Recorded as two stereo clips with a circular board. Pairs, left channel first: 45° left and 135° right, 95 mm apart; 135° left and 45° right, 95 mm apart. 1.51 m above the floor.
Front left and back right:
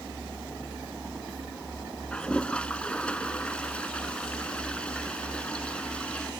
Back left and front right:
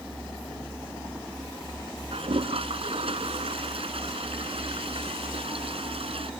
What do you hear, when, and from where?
2.1 s a toilet flushing: 35° right